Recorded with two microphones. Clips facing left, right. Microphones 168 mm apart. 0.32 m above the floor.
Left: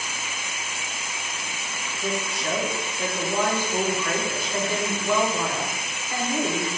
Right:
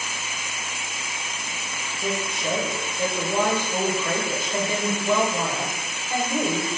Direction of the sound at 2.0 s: 20° right (ahead or behind).